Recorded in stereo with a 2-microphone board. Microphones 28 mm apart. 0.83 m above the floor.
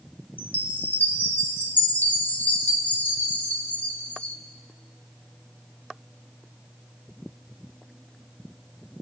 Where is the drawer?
I don't hear a drawer.